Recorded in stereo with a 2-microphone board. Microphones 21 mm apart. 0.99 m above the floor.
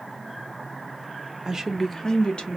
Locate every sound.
1.4 s a woman speaking: 25° right (ahead or behind), 0.6 m; by 2.6 s 55° left (ahead or behind), 1.0 m